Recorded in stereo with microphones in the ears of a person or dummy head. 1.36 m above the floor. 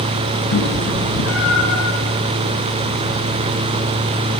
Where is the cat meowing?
80° left, 6.5 m.